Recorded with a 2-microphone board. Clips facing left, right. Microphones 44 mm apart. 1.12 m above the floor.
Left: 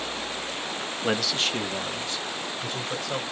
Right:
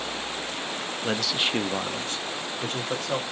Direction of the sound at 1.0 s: 15° left (ahead or behind).